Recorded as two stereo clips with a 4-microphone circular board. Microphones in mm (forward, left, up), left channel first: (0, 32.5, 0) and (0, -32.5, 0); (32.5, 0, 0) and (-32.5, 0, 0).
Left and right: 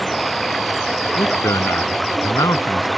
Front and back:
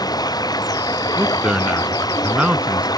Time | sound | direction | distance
0.0 | running water | straight ahead | ?
1.2 | a man speaking | 105° left | ?